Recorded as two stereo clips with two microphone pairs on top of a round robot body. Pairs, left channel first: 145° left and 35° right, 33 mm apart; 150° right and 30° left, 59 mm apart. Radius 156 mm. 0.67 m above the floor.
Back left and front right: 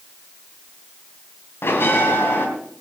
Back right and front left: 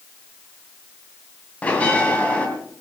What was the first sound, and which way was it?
A bell, 140° left.